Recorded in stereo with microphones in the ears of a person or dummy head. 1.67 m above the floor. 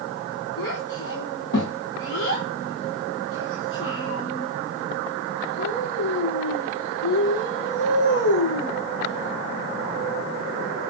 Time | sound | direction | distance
0.6 | a child speaking | 70° left (ahead or behind) | 1.5 m